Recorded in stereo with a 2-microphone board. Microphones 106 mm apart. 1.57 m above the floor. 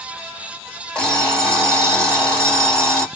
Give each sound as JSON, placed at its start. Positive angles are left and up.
{"t": 0.9, "sound": "an alarm clock", "side_deg": 5, "distance_m": 1.5}